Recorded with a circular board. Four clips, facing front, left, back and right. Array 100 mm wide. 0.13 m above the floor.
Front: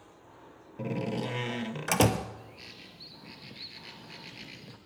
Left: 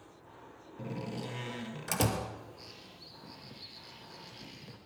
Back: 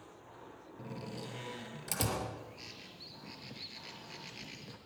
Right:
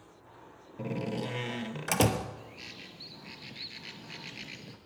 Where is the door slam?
30° right, 1.6 m.